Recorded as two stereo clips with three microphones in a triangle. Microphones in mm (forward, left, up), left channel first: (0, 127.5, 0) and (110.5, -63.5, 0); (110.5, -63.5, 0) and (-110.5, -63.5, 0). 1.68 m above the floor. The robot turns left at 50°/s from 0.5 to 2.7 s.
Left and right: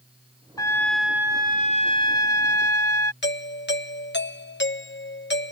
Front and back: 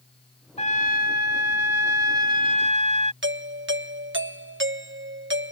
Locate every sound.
0.6 s a trumpet: 50° left; by 3.1 s 55° right
3.2 s a doorbell: 155° left